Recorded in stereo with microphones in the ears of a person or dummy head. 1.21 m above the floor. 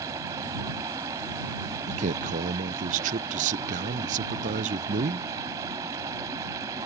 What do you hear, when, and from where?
0.0 s running water: 20° right (ahead or behind)
1.9 s a man speaking: 40° right (ahead or behind)